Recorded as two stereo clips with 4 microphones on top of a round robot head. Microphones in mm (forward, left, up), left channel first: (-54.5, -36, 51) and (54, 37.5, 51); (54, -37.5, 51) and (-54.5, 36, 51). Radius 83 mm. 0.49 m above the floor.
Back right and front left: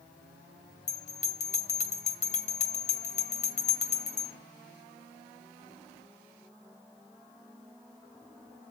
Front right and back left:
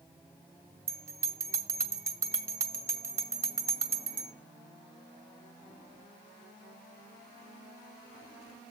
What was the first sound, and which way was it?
A bell, 145° right.